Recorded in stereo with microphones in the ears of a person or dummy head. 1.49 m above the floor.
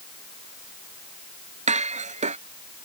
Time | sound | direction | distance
1.7 | dishes clattering | 35° right (ahead or behind) | ?